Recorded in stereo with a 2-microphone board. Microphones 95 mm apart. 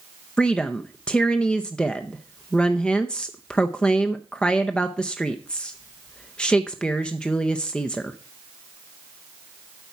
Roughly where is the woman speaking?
Centre.